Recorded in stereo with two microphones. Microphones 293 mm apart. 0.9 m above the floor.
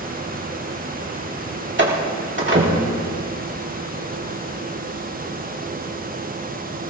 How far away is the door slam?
About 1.9 m.